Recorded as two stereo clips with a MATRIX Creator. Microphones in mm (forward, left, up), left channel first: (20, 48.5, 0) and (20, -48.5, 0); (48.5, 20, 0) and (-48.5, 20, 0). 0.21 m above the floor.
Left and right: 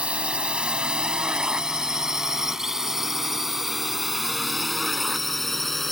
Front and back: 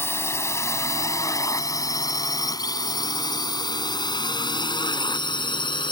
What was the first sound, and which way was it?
A drone, 25° right.